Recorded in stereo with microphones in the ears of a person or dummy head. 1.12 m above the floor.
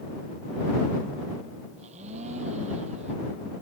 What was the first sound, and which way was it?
A blender, 35° right (ahead or behind).